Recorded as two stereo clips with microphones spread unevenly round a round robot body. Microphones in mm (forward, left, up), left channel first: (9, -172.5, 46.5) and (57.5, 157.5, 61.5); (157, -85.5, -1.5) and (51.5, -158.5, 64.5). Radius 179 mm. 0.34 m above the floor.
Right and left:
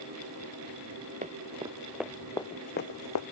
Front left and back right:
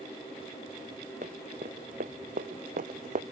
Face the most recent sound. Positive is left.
turn(degrees=-140)